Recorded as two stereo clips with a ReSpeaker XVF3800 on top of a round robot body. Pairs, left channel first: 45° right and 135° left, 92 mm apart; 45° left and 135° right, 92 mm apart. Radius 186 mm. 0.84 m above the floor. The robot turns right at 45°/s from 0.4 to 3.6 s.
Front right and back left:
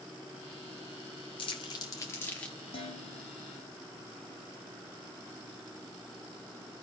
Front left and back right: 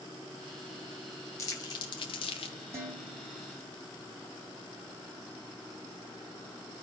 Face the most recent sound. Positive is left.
turn(degrees=-35)